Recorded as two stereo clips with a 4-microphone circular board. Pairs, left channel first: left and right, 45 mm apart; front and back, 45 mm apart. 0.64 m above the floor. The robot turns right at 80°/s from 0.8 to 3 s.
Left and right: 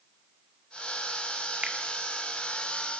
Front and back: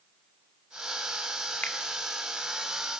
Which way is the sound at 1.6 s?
30° right.